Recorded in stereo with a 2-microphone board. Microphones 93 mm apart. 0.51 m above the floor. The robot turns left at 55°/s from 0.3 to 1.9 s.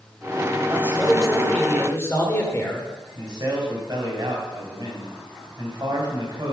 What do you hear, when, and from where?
0.7 s a man speaking: 150° right, 1.6 m; by 2.9 s 145° left, 1.6 m
3.1 s a man speaking: 45° right (ahead or behind), 2.5 m